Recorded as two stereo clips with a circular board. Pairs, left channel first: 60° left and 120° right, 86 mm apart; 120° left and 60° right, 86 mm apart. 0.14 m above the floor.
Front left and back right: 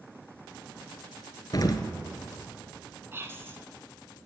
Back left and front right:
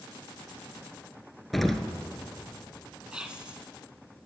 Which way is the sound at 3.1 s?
125° right.